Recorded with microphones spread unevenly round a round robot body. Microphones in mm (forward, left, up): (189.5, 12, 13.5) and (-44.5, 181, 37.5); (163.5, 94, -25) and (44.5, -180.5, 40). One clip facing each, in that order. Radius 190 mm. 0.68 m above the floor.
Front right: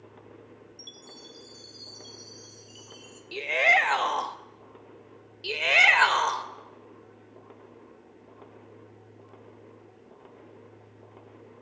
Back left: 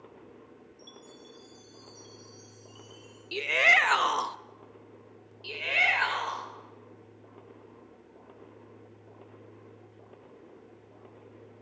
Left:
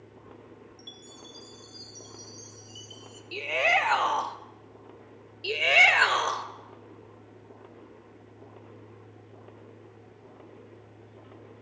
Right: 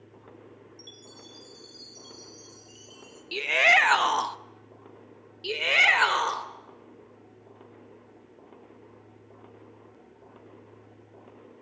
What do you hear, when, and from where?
0.8 s a chime: 15° right, 3 m
3.3 s a shout: 155° right, 0.6 m
5.4 s a shout: 30° right, 2.5 m